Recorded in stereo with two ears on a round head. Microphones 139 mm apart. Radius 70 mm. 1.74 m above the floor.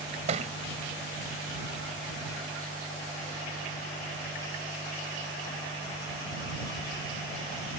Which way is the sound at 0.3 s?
45° right (ahead or behind).